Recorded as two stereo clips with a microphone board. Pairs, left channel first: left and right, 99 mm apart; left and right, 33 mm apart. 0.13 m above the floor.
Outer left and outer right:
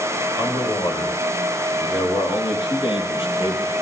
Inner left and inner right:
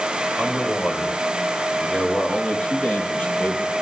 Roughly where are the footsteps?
I don't hear footsteps.